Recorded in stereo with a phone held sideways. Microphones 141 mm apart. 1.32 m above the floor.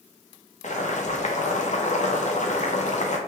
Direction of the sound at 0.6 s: 55° left (ahead or behind).